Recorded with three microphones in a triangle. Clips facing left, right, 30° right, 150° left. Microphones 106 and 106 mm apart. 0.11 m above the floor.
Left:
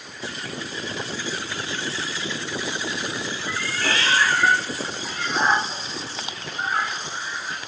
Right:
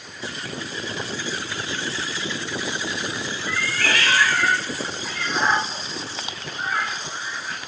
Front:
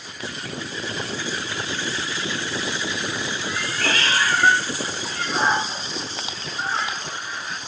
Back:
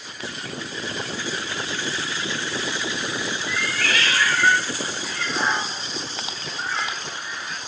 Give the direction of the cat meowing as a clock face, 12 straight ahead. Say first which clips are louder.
Right 2 dB, front 1 dB; 11 o'clock.